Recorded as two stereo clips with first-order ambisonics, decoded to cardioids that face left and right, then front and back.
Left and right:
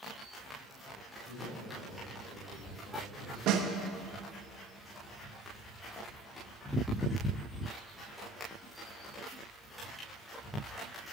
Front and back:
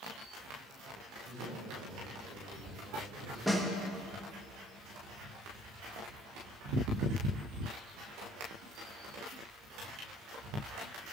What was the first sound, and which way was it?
A man speaking, 140° left.